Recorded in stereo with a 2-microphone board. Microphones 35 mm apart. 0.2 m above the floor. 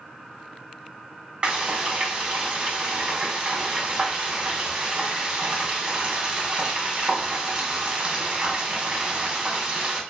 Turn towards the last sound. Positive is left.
turn(degrees=-30)  # may be behind; listen again after turning